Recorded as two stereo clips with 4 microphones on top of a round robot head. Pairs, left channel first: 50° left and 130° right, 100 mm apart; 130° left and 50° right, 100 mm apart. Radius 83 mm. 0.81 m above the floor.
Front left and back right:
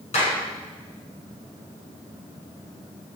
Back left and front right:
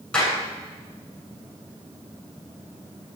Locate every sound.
0.1 s a clap: 50° left, 9 m